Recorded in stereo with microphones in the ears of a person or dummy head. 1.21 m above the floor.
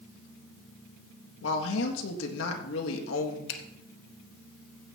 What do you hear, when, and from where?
1.4 s a woman speaking: 75° left (ahead or behind), 1.9 m
3.5 s a finger snap: 75° left (ahead or behind), 1.3 m